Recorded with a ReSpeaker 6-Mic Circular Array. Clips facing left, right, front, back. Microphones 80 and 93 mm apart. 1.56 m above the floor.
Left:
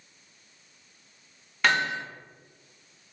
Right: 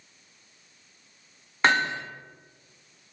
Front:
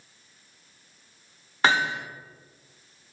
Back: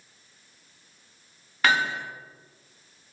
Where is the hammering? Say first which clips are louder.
Right 2 dB, front 1 dB; 50° right, 1.3 m.